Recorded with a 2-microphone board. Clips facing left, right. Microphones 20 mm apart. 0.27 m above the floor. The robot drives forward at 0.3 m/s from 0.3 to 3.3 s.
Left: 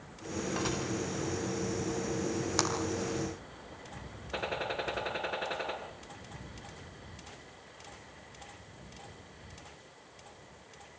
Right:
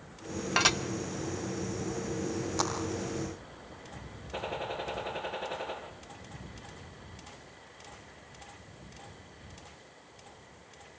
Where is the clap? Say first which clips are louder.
Even; 45° left (ahead or behind), 5 m.